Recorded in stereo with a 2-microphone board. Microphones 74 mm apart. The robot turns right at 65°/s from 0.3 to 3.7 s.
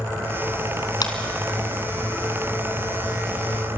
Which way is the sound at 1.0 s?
65° left (ahead or behind).